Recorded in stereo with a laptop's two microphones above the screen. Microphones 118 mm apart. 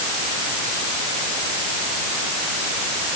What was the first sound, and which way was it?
Only background noise.